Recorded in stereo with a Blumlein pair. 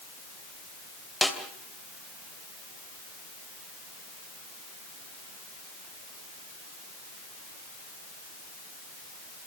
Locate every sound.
1.2 s a snare drum: 5° left, 3 m